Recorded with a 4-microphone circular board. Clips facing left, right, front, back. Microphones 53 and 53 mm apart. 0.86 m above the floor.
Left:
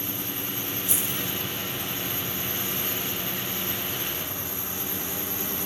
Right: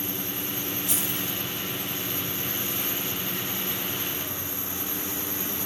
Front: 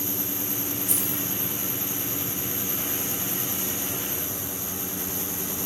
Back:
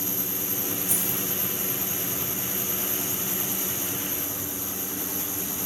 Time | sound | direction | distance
0.9 | keys jangling | 25° left | 1.4 m